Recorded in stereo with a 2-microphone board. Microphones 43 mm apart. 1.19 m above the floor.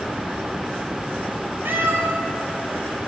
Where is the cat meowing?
60° right (ahead or behind), 2.5 m.